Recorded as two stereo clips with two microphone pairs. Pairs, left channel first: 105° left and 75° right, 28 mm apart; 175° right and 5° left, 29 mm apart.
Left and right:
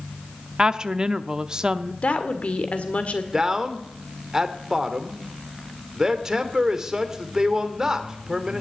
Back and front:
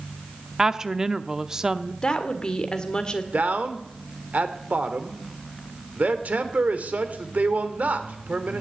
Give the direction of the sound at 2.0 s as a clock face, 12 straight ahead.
8 o'clock.